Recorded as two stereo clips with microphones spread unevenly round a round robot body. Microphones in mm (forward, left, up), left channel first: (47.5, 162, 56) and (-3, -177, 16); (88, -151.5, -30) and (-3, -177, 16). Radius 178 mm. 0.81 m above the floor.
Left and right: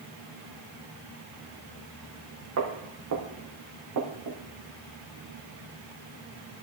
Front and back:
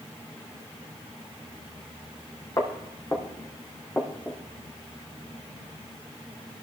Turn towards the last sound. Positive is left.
turn(degrees=-65)